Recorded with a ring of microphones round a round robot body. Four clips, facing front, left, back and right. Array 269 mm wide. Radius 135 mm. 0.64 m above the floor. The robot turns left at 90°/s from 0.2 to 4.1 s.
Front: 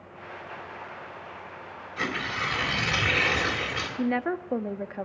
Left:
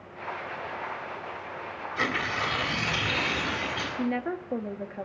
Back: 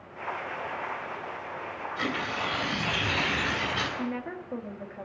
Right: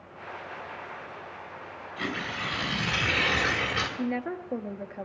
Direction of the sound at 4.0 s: 20° left.